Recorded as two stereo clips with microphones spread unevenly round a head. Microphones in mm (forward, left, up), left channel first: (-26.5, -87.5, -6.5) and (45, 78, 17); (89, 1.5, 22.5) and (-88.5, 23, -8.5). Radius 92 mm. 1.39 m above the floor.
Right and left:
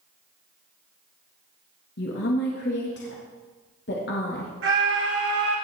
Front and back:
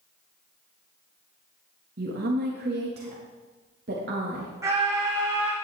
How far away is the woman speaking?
About 1.8 m.